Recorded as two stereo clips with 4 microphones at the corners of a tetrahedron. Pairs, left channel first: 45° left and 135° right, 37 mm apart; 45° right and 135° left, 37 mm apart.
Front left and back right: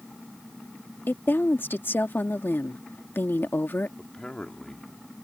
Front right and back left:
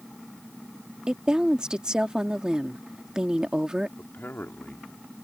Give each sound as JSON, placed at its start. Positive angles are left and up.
{"t": 1.1, "sound": "a woman speaking", "azimuth_deg": 65}
{"t": 4.0, "sound": "a man speaking", "azimuth_deg": -25}